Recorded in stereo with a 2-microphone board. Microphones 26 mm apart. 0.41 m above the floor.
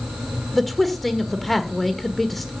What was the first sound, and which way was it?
A man speaking, centre (ahead or behind).